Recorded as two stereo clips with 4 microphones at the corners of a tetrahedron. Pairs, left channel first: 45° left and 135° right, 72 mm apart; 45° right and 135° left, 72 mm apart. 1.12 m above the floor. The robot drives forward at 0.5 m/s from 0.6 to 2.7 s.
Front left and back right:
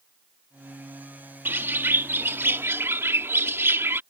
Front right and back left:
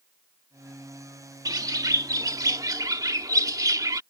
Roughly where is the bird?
Behind.